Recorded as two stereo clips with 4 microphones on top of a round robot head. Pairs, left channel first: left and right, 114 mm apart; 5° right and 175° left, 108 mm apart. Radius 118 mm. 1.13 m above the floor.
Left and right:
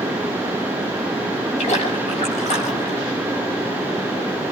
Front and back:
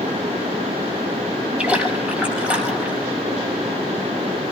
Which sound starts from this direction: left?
A splash, at 1.6 s.